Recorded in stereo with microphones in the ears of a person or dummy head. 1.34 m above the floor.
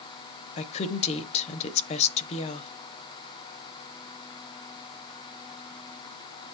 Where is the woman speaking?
35° left (ahead or behind), 0.9 m.